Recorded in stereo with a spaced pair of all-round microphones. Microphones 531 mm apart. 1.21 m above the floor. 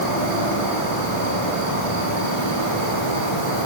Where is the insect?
80° left, 7 m.